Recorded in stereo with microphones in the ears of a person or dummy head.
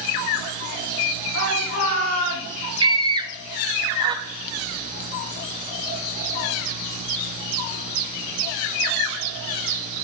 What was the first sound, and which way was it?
A shout, 75° left (ahead or behind).